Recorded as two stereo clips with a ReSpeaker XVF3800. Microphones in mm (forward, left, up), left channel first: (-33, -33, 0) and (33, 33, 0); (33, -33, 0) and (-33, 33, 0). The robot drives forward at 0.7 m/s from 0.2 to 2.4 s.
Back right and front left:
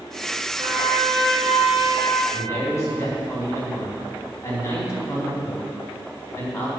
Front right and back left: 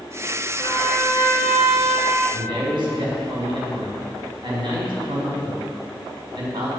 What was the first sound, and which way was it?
A trumpet, 90° left.